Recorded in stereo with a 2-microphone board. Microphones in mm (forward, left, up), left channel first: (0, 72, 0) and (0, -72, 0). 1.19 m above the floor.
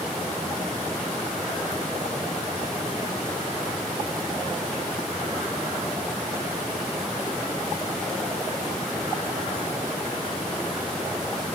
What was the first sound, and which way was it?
Only background noise.